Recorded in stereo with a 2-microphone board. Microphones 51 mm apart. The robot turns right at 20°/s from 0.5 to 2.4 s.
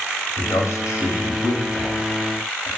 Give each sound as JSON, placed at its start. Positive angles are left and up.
{"t": 0.4, "sound": "a man speaking", "side_deg": 80, "distance_m": 3.5}